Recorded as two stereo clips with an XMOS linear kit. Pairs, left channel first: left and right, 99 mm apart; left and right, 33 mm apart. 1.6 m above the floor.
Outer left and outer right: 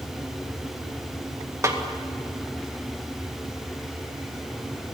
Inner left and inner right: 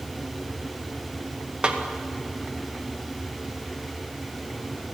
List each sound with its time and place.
1.6 s a snare drum: 30° right (ahead or behind), 2 m